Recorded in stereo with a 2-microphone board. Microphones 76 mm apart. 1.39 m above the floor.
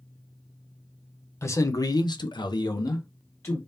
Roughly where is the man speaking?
Left.